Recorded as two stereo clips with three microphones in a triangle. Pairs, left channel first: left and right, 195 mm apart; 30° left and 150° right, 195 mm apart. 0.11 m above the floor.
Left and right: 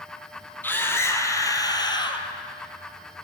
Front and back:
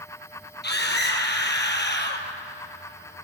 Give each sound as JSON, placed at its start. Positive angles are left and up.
{"t": 0.6, "sound": "a scream", "azimuth_deg": 10, "distance_m": 3.0}